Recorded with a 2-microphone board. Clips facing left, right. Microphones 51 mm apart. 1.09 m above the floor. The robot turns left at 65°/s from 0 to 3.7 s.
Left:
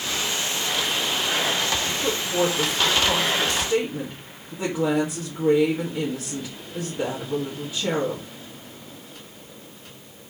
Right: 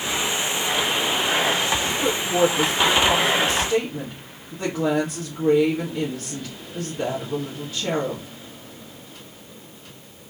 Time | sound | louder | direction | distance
1.9 | a woman speaking | right 3 dB | 65° right | 1.8 m